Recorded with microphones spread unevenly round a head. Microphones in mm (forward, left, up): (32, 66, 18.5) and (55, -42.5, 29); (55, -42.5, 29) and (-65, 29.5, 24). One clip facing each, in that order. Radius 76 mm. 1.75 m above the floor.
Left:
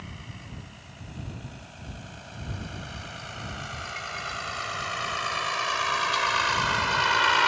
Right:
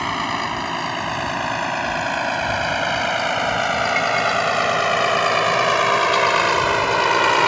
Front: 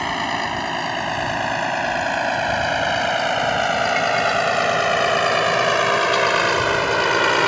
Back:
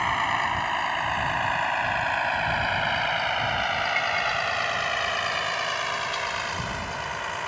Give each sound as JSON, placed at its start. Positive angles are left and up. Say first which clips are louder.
{"t": 0.0, "sound": "a vehicle", "louder": "right 22 dB, front 3 dB", "azimuth_deg": -80}